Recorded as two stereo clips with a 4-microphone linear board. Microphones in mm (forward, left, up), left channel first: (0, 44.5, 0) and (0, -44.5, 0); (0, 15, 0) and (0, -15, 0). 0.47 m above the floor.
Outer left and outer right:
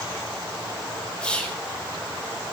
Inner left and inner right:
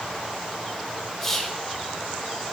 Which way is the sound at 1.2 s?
10° left (ahead or behind).